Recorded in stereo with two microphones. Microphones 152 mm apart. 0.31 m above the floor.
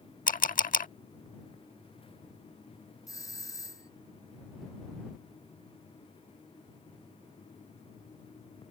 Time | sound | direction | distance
0.3 | a camera shutter | 65° left (ahead or behind) | ?
3.1 | a doorbell | 25° left (ahead or behind) | ?